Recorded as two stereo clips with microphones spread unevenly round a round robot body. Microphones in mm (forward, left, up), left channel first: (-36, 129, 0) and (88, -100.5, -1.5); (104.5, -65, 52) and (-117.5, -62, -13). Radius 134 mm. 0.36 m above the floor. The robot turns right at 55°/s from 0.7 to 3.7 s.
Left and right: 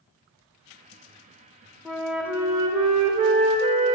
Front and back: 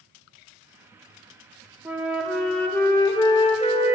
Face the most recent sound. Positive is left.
turn(degrees=-60)